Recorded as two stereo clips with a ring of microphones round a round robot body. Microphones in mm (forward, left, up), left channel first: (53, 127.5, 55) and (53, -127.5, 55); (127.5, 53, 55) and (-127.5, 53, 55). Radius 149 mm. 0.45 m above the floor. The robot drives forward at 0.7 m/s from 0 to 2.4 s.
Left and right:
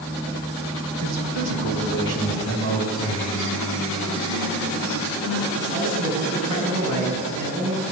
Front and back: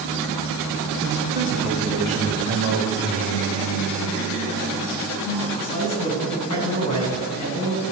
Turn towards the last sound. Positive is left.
turn(degrees=-70)